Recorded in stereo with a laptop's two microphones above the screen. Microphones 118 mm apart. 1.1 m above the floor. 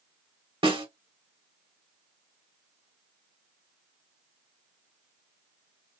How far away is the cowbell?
No cowbell in this recording.